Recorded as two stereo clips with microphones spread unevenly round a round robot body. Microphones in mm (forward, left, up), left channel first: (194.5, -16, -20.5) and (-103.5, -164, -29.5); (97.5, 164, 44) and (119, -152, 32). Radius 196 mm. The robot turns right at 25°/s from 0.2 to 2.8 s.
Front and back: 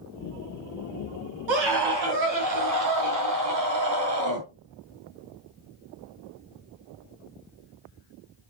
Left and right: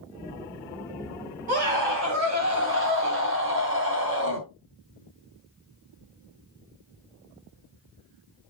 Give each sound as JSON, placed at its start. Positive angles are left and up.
{"t": 1.5, "sound": "a scream", "azimuth_deg": -155, "distance_m": 5.5}